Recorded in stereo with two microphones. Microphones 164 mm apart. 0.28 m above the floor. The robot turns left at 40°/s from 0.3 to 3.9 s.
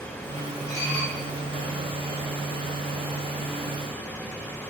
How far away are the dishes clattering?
About 4 m.